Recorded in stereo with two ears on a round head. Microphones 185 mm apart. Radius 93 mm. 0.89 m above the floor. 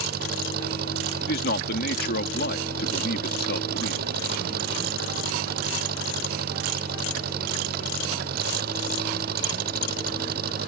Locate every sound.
0.0 s an engine running: 50° right (ahead or behind)
1.2 s a man speaking: 55° left (ahead or behind)